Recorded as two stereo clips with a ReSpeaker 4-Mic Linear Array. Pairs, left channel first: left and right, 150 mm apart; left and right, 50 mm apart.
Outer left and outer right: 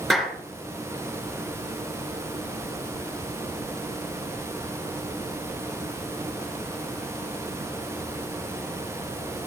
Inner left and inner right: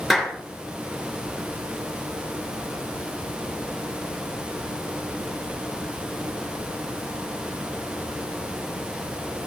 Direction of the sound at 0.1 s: Centre (ahead or behind).